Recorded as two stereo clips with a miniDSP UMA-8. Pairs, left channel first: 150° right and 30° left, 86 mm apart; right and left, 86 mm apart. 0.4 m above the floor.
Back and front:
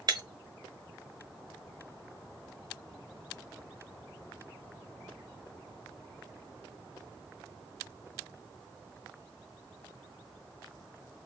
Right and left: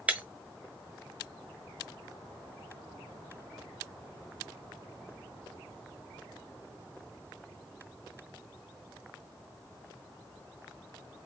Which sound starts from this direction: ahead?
Breaking glass, at 0.1 s.